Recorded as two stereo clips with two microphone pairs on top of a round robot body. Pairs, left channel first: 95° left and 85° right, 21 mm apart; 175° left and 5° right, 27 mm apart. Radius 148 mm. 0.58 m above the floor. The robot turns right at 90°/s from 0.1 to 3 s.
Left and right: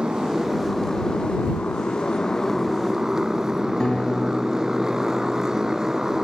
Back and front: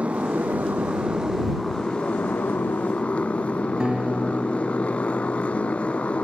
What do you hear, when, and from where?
0.0 s a motorcycle: 45° right; by 6.2 s 145° right
3.8 s a guitar: 50° left